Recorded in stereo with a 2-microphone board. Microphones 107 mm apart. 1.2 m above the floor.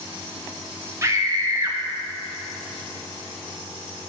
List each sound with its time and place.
1.0 s a scream: 30° right (ahead or behind), 0.8 m